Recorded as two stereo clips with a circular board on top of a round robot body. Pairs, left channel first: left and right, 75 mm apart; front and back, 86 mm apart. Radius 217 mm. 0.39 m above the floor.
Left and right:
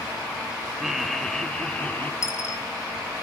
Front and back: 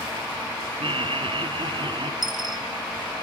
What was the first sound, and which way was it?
Laughter, 175° right.